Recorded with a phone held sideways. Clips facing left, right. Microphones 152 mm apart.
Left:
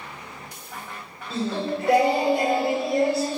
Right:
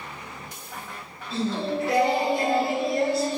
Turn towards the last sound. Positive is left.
turn(degrees=70)  # may be behind; listen again after turning